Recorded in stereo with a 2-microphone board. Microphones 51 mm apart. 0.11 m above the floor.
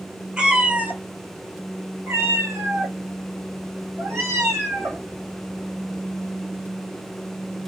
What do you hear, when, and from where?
0.4 s a cat meowing: 15° right (ahead or behind), 1.2 m; by 5.0 s 80° right, 3 m